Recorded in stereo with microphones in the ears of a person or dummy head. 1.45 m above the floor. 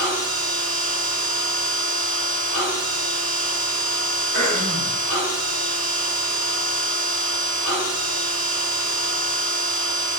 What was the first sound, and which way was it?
A machine running, 65° right (ahead or behind).